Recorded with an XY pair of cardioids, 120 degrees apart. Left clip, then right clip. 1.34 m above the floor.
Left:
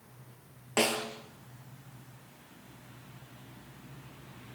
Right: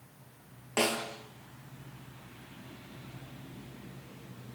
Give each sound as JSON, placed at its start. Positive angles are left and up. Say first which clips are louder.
{"t": 0.8, "sound": "a snare drum", "louder": "left 1 dB", "azimuth_deg": 10, "distance_m": 4.0}